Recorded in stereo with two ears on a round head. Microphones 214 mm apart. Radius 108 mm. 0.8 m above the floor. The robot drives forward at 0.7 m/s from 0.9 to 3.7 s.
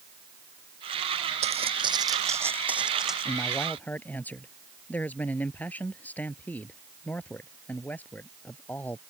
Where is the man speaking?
5° left (ahead or behind).